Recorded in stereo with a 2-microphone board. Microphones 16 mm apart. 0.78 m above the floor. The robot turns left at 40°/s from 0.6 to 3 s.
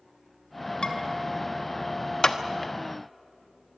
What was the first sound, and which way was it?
Dishes clattering, 85° left.